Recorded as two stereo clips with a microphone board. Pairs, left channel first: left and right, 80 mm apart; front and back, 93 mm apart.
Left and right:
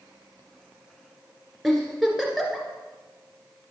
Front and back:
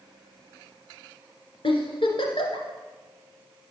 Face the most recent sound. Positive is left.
turn(degrees=0)